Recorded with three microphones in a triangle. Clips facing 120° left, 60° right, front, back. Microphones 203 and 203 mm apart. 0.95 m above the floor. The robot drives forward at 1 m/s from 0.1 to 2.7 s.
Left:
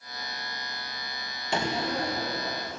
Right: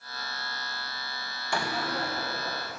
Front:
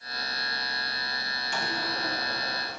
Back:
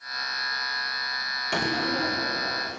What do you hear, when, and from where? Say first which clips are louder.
1.5 s a door slam: left 3 dB, back 8 dB; 170° right, 0.7 m; by 2.8 s 175° right, 1.8 m